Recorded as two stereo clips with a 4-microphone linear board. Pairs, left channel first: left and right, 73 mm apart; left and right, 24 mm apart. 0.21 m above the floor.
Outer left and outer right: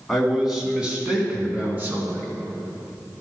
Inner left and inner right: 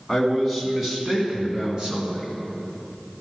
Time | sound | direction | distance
0.1 | a man speaking | centre (ahead or behind) | 2 m